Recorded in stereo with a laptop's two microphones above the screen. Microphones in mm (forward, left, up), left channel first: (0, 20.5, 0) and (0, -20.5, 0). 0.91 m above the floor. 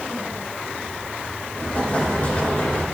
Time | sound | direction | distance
1.6 | an explosion | 40° left (ahead or behind) | 3.5 m